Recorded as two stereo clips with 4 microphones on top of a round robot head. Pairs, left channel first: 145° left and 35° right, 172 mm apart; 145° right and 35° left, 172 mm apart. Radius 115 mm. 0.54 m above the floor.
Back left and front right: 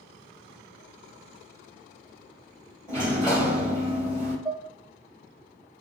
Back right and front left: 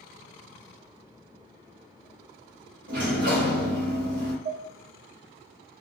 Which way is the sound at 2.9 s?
70° left.